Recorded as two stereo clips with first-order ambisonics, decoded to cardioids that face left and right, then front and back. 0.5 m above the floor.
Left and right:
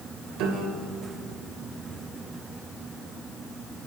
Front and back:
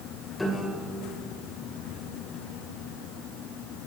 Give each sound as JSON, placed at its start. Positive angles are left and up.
{"t": 0.4, "sound": "a piano", "azimuth_deg": -75, "distance_m": 2.0}